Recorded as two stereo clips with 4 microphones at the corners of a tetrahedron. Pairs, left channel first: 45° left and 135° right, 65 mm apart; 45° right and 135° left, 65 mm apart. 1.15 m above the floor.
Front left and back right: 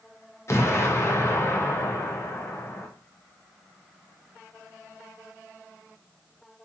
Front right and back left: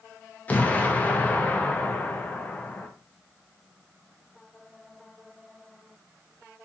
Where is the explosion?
15° left, 0.5 m.